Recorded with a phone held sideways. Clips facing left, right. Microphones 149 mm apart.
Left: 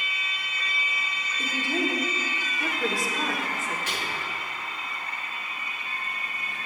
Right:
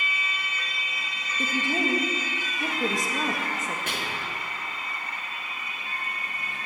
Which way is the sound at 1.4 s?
20° right (ahead or behind).